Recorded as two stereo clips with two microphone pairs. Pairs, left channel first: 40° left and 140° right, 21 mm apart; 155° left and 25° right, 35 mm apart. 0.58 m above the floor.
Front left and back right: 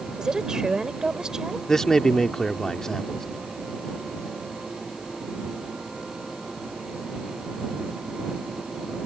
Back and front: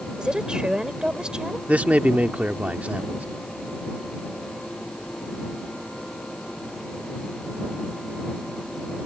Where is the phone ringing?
I don't hear a phone ringing.